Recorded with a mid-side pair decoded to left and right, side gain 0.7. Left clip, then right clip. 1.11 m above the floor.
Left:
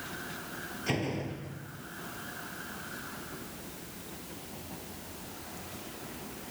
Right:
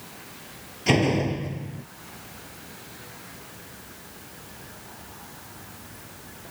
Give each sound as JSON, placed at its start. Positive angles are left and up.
{"t": 0.9, "sound": "a door slam", "azimuth_deg": -45}